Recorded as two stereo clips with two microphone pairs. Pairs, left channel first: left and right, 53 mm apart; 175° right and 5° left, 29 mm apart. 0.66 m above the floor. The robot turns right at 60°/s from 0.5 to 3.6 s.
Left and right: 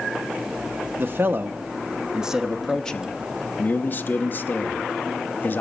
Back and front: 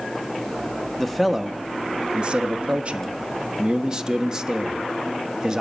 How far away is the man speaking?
About 0.7 m.